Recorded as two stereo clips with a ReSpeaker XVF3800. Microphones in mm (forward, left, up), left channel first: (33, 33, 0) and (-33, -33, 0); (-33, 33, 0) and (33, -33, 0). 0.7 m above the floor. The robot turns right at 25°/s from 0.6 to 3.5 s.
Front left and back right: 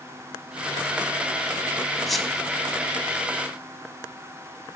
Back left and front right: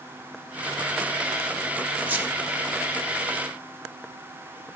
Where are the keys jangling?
I don't hear keys jangling.